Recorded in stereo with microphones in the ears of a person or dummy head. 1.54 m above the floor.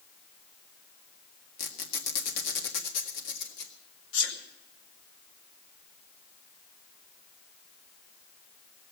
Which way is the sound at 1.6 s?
50° left (ahead or behind).